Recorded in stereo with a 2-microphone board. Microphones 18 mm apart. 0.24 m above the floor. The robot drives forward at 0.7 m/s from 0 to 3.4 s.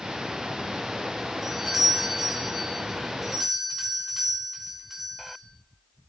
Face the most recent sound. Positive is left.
turn(degrees=-10)  # may be behind; listen again after turning